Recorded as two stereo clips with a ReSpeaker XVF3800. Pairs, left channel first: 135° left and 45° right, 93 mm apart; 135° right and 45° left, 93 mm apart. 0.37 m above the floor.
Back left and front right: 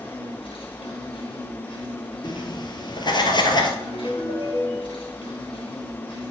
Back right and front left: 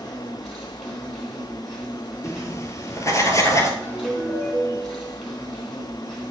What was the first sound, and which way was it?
An insect, 135° left.